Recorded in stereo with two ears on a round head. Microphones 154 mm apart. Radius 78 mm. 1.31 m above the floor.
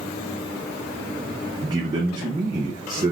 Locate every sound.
1.6 s a man speaking: 25° right (ahead or behind), 0.7 m